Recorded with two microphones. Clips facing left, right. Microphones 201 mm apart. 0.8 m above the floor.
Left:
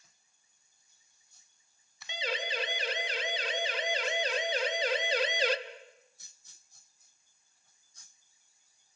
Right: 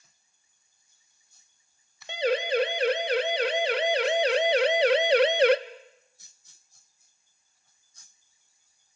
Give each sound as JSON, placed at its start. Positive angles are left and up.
{"t": 2.1, "sound": "a siren", "side_deg": -55, "distance_m": 2.0}